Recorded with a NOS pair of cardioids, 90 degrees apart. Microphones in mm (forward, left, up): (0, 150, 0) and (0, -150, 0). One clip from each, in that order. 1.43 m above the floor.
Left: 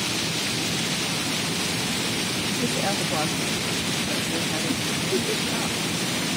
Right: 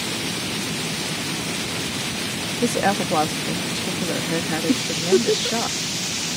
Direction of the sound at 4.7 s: 70° right.